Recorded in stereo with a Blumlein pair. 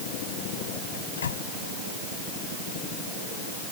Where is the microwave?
65° left.